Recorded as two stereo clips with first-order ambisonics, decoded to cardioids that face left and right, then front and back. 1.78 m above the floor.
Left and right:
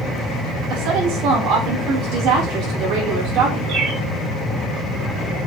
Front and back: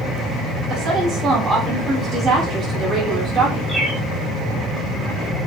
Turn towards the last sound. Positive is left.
turn(degrees=-85)